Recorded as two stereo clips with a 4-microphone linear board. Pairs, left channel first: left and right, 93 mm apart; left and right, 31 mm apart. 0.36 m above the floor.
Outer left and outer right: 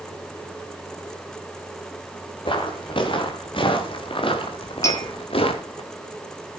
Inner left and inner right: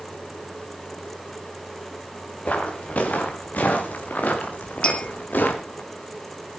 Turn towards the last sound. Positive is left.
turn(degrees=30)  # may be behind; listen again after turning